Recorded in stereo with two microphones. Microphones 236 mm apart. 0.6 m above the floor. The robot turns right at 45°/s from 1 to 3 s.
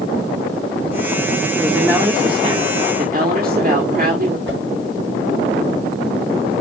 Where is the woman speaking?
Straight behind, 1.7 m; by 4.4 s 115° right, 1.7 m.